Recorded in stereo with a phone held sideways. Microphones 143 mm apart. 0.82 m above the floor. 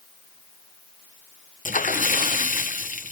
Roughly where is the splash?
Left.